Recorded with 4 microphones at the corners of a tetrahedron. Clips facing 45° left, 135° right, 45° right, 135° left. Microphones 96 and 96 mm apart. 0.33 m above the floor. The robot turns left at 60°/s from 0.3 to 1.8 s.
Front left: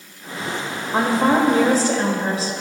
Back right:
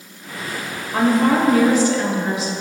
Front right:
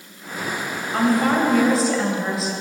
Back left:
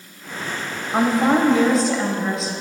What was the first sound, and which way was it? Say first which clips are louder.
A woman speaking: back right 1 dB, back left 1 dB; 95° left.